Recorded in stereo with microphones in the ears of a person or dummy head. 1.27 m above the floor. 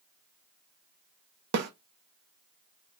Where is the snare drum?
55° right (ahead or behind), 0.7 m.